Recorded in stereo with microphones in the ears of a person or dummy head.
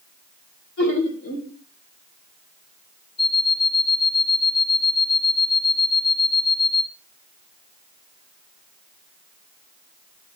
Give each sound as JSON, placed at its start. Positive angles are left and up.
{"t": 0.8, "sound": "laughter", "side_deg": 65, "distance_m": 4.5}
{"t": 3.2, "sound": "an alarm clock", "side_deg": 60, "distance_m": 2.5}